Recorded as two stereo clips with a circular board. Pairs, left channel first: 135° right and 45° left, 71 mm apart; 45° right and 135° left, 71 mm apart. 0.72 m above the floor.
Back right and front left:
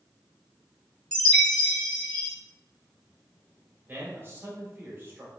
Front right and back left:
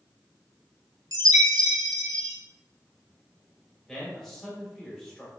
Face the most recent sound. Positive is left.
turn(degrees=30)